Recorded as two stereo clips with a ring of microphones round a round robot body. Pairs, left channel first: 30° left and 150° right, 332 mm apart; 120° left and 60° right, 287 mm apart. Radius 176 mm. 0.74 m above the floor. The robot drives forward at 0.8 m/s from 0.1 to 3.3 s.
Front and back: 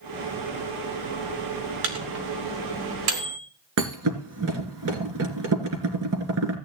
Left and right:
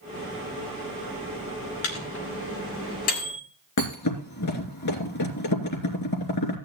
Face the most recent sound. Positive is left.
turn(degrees=160)